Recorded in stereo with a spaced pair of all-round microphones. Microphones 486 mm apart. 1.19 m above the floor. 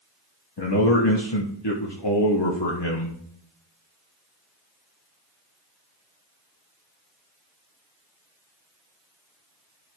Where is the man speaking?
55° left (ahead or behind), 1.3 m.